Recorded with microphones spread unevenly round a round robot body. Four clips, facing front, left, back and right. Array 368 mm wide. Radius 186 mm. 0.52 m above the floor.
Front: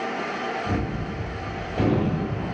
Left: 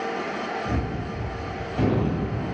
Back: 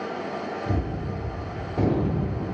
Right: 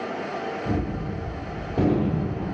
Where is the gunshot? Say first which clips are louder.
Right 1 dB, front 1 dB; 95° right, 1.5 m.